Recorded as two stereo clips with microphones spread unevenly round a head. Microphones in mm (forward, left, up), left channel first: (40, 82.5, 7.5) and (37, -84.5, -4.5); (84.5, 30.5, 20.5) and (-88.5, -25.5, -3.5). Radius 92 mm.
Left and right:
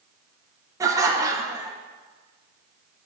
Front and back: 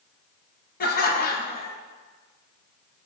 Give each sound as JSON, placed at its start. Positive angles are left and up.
{"t": 0.8, "sound": "laughter", "azimuth_deg": -25, "distance_m": 1.4}